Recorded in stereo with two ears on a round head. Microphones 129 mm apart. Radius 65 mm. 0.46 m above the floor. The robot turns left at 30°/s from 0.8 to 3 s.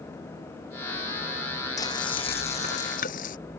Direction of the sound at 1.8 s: 155° left.